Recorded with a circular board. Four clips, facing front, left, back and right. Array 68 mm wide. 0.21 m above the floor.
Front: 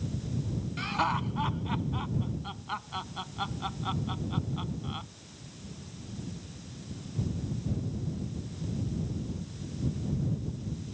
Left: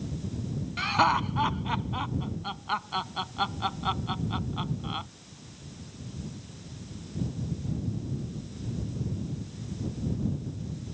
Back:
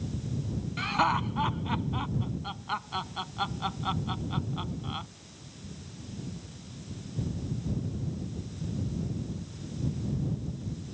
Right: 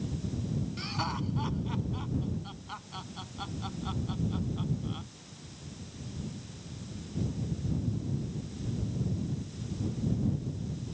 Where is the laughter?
110° left.